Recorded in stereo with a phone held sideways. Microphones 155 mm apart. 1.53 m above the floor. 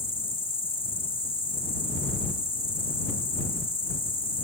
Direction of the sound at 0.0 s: 35° left (ahead or behind).